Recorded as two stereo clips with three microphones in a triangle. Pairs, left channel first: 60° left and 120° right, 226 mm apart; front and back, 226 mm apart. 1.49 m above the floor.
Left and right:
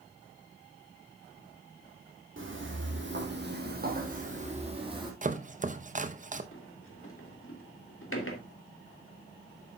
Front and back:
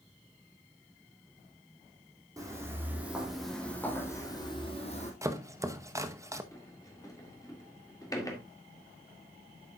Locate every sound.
2.4 s footsteps: 105° right, 3.5 m; by 5.1 s 50° right, 2.5 m
5.2 s chopping: 115° right, 0.8 m
6.5 s a sliding door: 75° left, 2 m